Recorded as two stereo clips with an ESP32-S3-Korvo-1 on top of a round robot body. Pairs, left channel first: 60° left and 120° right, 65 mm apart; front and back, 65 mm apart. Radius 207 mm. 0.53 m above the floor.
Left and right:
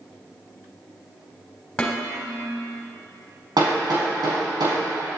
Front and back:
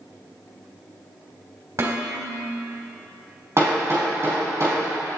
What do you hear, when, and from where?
1.8 s dishes clattering: 140° left, 3.5 m
3.6 s hammering: 130° right, 5 m